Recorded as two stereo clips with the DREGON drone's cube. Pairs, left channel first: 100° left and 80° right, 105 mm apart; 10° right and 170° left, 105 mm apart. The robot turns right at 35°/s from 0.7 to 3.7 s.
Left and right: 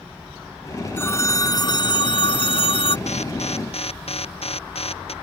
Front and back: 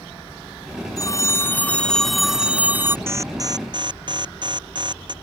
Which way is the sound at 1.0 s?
35° left.